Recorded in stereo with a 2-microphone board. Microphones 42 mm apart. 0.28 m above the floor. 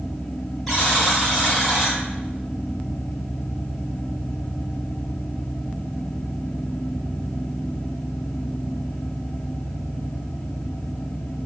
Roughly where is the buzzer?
Centre.